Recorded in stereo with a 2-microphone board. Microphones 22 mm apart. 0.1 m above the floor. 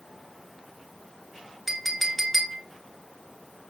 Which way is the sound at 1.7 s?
Centre (ahead or behind).